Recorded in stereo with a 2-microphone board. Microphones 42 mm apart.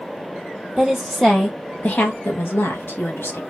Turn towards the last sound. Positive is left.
turn(degrees=75)  # may be behind; listen again after turning